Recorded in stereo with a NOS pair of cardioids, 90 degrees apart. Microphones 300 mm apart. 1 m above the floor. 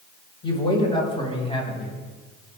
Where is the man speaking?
15° left, 5 m; by 1.9 s 20° left, 7 m.